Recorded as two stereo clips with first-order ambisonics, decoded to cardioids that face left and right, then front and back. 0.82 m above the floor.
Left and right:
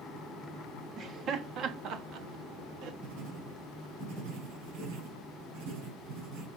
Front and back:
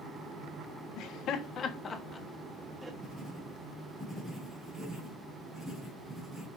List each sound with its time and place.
1.0 s laughter: 30° right, 1.4 m; by 2.9 s 100° right, 1.3 m
3.0 s writing: 95° right, 5.5 m